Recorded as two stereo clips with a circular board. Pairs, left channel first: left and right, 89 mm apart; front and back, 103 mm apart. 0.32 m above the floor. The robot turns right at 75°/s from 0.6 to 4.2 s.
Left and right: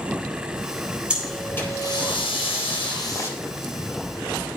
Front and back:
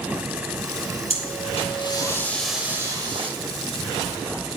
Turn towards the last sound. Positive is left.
turn(degrees=-140)